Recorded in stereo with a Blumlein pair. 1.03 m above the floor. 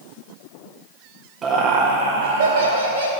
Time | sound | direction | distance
1.4 | laughter | 20° right | 0.9 m